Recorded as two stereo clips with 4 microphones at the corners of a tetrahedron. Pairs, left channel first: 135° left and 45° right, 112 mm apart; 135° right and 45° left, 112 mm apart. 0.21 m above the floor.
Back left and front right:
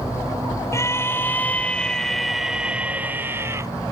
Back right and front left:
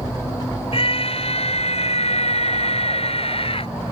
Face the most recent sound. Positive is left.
turn(degrees=-105)